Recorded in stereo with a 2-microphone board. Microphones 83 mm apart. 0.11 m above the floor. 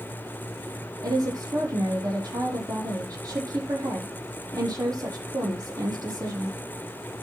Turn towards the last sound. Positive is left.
turn(degrees=-50)  # may be behind; listen again after turning